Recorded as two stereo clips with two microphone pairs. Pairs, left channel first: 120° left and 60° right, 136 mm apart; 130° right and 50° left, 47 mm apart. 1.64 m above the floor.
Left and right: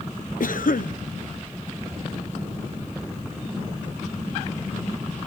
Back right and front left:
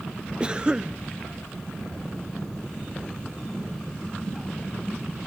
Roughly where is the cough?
Behind left.